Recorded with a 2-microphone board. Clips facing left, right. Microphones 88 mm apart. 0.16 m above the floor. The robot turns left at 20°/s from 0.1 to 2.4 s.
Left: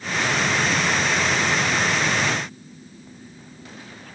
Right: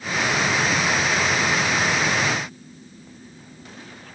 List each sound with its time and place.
Only background noise.